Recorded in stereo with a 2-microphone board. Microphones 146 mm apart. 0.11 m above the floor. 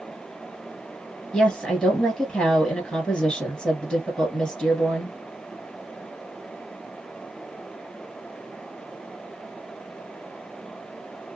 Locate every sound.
1.3 s a woman speaking: 5° left (ahead or behind), 1.8 m